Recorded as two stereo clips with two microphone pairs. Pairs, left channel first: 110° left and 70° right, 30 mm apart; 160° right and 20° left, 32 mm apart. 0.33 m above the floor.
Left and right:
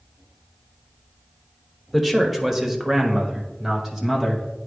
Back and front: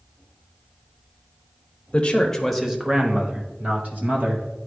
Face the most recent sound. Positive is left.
turn(degrees=5)